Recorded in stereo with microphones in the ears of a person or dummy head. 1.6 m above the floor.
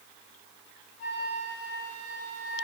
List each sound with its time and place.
1.0 s a flute: 45° left (ahead or behind), 1.8 m